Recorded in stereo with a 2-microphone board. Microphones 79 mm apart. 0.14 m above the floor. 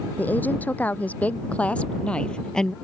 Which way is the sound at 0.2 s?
20° left (ahead or behind).